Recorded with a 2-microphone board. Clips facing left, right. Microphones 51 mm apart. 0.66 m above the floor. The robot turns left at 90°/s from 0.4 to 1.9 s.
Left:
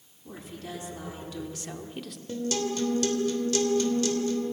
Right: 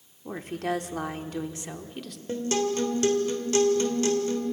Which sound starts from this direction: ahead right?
A woman speaking, at 0.2 s.